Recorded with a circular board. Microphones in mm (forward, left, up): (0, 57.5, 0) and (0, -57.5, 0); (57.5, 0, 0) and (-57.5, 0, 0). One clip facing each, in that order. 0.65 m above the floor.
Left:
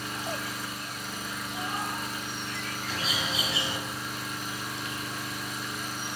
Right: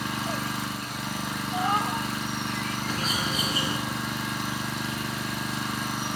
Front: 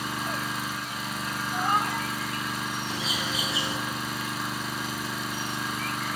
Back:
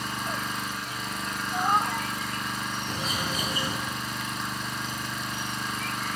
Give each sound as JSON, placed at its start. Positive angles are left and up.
{"t": 0.0, "sound": "an engine running", "azimuth_deg": -85, "distance_m": 4.0}
{"t": 1.5, "sound": "a cat meowing", "azimuth_deg": -100, "distance_m": 2.0}
{"t": 2.9, "sound": "a bird", "azimuth_deg": -135, "distance_m": 5.0}